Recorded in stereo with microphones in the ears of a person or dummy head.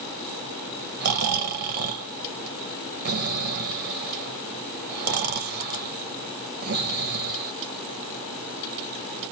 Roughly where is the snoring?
Right.